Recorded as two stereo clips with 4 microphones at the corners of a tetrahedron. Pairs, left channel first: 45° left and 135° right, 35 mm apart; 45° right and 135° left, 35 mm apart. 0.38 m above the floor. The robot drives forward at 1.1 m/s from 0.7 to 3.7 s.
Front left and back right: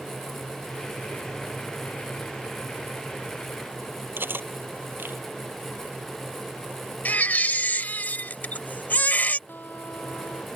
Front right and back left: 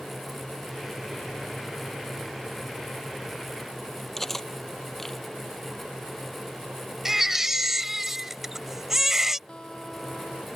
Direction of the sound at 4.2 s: 125° right.